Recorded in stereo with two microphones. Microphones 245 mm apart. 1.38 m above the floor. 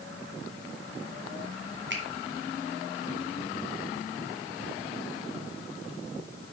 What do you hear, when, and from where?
1.9 s a finger snap: 50° right (ahead or behind), 2 m